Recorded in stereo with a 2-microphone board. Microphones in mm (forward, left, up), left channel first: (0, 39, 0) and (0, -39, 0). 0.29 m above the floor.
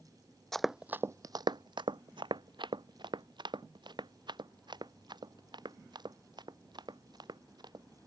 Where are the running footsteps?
5° left (ahead or behind); by 7.8 s 60° right (ahead or behind).